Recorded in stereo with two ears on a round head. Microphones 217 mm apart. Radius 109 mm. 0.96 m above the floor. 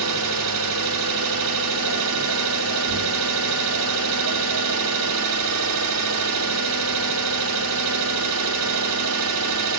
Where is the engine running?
75° right (ahead or behind), 2 m.